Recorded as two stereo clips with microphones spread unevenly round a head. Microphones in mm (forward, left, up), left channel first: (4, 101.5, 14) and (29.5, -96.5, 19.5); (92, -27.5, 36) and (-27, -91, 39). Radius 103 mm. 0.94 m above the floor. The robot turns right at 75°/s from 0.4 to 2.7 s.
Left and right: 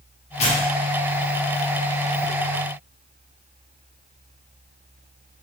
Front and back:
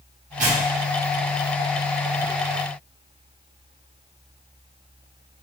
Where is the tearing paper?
160° left, 1.5 m; by 2.3 s 60° right, 1.5 m.